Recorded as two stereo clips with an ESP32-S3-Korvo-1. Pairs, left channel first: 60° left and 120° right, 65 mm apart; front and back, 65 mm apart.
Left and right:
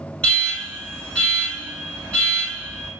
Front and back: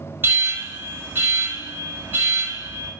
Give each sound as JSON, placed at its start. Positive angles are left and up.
{"t": 0.2, "sound": "an alarm", "azimuth_deg": 130, "distance_m": 1.2}